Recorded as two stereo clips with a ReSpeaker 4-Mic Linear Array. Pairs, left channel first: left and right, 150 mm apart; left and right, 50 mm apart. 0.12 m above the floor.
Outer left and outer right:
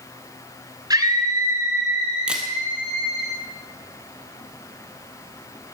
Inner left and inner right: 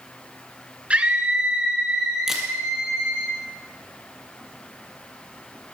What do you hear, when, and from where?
0.9 s a scream: 25° right (ahead or behind), 1.4 m; by 3.3 s 5° right (ahead or behind), 3.5 m
2.3 s a camera shutter: 5° right (ahead or behind), 2.5 m